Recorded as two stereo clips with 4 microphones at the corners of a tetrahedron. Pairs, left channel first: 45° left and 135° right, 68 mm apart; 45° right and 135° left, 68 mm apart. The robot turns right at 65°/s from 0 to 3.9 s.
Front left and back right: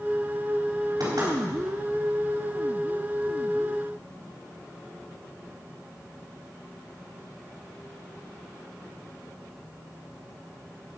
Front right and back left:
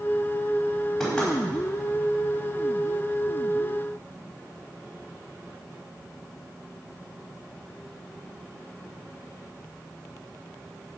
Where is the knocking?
140° right, 4 m; by 1.3 s 120° right, 4 m.